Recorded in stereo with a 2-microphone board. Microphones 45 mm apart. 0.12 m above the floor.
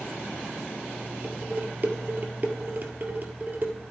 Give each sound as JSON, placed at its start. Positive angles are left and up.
{"t": 1.2, "sound": "dishes clattering", "side_deg": -40, "distance_m": 1.7}